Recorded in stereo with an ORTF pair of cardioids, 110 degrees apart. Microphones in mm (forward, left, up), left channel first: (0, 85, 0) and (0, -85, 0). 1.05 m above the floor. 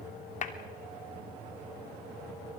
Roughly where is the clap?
Ahead left.